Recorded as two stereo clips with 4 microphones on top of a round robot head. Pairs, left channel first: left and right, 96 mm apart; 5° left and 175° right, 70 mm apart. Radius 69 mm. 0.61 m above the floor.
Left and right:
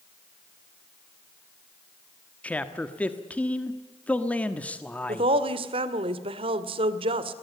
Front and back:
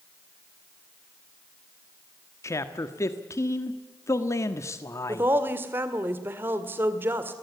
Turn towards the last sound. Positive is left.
turn(degrees=-110)